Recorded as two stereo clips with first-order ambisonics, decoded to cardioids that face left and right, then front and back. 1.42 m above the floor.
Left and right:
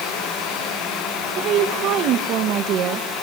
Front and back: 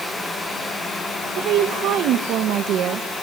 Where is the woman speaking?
135° right, 1.9 m.